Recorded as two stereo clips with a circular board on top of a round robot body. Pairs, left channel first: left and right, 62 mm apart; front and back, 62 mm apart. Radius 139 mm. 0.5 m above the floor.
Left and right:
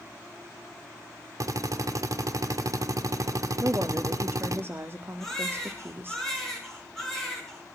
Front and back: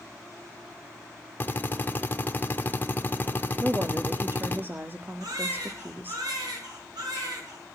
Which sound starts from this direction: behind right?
A woman speaking, at 3.6 s.